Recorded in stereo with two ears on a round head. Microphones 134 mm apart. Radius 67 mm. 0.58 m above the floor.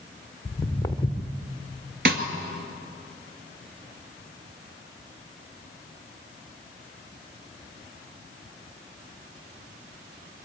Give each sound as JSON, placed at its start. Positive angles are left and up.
{"t": 0.5, "sound": "footsteps", "side_deg": 20, "distance_m": 1.9}
{"t": 2.0, "sound": "a snare drum", "side_deg": -70, "distance_m": 2.0}